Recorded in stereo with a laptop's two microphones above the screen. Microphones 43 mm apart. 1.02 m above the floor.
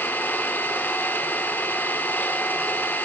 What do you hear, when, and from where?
0.0 s an engine running: 55° left (ahead or behind), 1.9 m